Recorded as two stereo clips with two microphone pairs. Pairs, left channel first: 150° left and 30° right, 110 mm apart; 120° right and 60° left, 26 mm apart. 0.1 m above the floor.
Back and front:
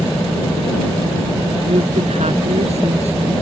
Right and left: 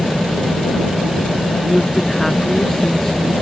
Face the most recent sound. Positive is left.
turn(degrees=-40)